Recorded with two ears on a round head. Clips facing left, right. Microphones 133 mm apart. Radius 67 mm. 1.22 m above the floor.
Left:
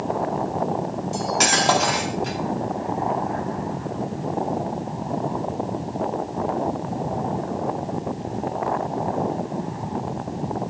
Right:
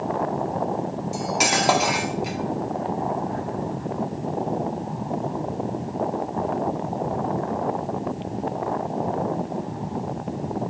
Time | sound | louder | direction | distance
1.1 | cutlery clinking | left 1 dB | 10° right (ahead or behind) | 1.2 m